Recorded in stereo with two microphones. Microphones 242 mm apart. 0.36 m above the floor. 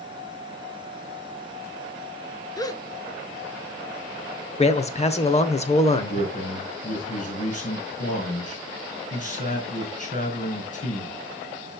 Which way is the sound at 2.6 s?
15° left (ahead or behind).